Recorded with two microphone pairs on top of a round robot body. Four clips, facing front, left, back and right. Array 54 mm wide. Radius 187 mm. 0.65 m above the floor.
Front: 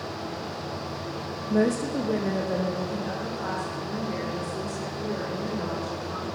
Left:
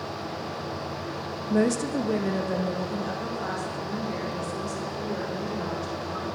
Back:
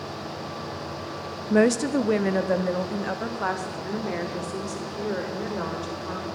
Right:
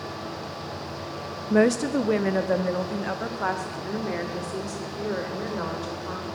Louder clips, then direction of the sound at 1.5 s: Right 4 dB, back 4 dB; 135° right.